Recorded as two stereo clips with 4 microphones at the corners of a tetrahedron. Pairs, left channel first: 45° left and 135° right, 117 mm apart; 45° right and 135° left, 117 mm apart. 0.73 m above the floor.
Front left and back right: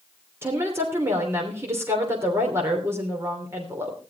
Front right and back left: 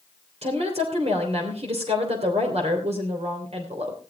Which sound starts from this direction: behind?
A woman speaking, at 0.4 s.